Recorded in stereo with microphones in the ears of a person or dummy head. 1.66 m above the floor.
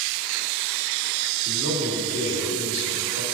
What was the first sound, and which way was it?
A man speaking, 55° right (ahead or behind).